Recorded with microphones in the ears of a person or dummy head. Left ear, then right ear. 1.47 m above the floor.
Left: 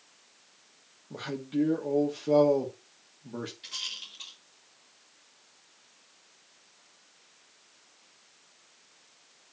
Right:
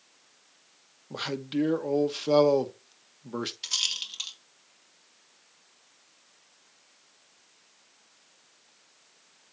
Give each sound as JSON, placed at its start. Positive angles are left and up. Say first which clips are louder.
{"t": 1.1, "sound": "a man speaking", "louder": "right 2 dB", "side_deg": -45, "distance_m": 1.1}
{"t": 3.6, "sound": "a rattle", "louder": "right 9 dB", "side_deg": -50, "distance_m": 2.5}